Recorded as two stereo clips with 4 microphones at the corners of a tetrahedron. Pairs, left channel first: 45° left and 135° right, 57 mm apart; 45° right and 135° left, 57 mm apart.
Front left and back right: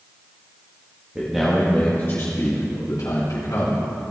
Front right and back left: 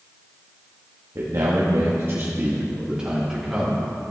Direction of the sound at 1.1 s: 155° left.